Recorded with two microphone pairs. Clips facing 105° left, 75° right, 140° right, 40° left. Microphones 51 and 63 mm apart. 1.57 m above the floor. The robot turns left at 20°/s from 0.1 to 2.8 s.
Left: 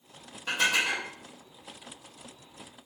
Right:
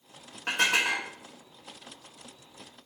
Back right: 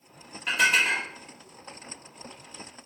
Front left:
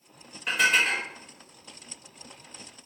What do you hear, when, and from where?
0.5 s dishes clattering: 45° right, 1.5 m; by 1.1 s 55° right, 1.5 m